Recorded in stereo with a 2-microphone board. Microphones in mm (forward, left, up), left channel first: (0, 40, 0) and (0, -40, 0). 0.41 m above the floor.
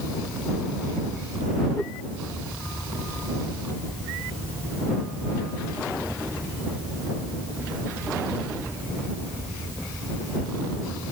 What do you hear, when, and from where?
1.8 s a whoosh: 10° left (ahead or behind)